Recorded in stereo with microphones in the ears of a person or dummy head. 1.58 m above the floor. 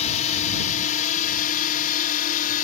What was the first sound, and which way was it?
A drone, 35° left (ahead or behind).